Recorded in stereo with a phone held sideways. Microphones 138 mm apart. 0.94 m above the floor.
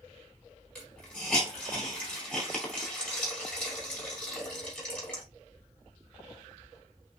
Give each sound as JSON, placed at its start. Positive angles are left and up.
{"t": 0.8, "sound": "a hiss", "side_deg": 10, "distance_m": 2.5}